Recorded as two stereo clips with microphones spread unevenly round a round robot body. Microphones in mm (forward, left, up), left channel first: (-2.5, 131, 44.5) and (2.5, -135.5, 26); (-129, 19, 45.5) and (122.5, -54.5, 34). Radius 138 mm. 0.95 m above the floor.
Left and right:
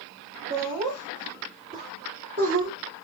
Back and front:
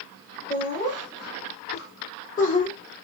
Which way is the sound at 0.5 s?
150° right.